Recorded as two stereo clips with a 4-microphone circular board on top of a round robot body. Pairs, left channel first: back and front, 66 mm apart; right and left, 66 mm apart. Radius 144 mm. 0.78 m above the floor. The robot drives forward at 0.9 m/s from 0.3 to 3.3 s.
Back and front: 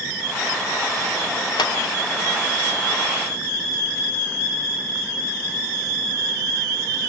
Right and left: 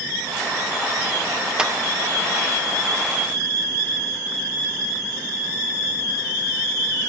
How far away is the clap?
About 2 m.